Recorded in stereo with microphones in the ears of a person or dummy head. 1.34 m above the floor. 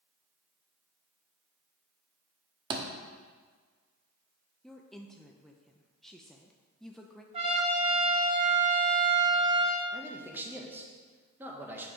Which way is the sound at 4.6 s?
Centre (ahead or behind).